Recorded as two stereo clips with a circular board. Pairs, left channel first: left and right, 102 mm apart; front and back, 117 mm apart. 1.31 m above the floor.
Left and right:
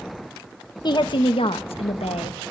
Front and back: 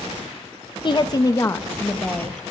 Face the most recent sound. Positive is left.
turn(degrees=85)